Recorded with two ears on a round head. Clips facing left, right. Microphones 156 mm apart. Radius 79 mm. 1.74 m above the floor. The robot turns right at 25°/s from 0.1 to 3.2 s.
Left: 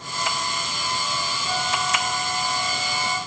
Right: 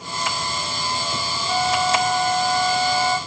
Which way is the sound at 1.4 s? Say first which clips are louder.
Right 7 dB; 105° left.